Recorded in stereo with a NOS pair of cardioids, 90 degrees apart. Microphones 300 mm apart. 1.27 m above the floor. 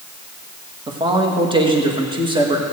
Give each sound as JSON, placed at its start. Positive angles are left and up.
{"t": 0.9, "sound": "a man speaking", "azimuth_deg": -15, "distance_m": 2.0}